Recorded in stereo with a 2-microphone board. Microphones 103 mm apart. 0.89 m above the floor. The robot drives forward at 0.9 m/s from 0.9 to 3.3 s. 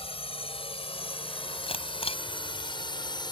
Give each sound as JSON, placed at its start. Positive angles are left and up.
{"t": 0.0, "sound": "a drone", "side_deg": 65}
{"t": 1.7, "sound": "a camera shutter", "side_deg": 65}